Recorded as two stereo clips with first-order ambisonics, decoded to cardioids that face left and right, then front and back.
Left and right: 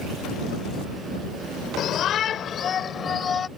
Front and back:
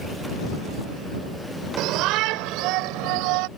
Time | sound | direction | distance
1.8 | a shout | 145° left | ?